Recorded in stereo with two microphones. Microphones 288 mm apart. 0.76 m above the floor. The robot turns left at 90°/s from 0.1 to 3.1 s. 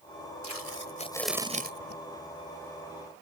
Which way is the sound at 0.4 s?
75° left.